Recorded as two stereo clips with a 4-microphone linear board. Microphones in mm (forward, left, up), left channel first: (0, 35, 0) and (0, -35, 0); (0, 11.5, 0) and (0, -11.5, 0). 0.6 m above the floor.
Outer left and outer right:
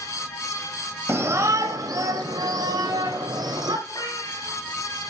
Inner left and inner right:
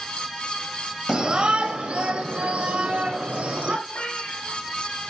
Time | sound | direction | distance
1.1 | a shout | 35° right (ahead or behind) | 1.0 m
3.9 | a cat meowing | 65° left (ahead or behind) | 5 m